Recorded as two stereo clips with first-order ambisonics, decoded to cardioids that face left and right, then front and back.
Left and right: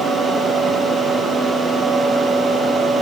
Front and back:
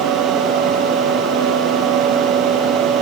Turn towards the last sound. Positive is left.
No sound to turn to.